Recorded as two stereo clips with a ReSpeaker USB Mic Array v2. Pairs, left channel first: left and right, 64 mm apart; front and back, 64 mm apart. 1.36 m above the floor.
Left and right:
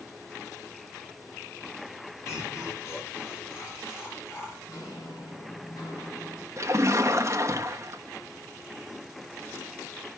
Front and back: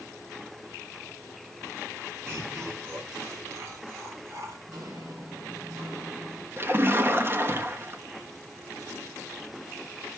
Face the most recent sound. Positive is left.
turn(degrees=-130)